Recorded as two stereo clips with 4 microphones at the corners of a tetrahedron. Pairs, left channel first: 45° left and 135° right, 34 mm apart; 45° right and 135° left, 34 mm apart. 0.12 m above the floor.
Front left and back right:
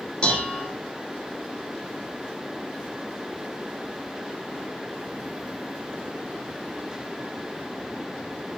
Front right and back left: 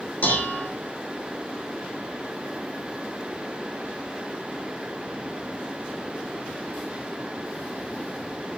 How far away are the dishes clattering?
About 3.5 m.